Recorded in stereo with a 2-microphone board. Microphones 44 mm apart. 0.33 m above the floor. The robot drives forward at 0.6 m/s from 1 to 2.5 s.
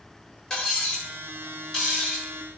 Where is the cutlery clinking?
10° left (ahead or behind), 0.7 m; by 2.3 s 5° left (ahead or behind), 1.3 m.